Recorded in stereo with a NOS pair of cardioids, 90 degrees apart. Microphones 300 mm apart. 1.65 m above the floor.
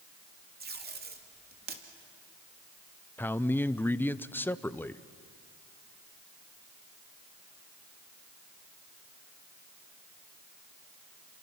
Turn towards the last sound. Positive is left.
turn(degrees=5)